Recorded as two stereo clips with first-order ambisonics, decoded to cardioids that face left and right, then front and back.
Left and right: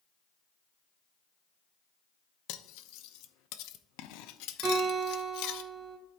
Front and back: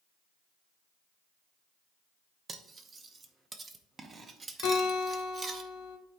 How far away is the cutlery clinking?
About 0.5 m.